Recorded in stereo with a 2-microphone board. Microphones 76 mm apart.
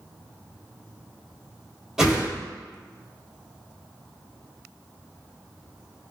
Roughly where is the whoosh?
Centre.